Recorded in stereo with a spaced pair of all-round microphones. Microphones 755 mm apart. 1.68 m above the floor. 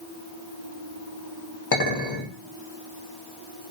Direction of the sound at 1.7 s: 30° left (ahead or behind).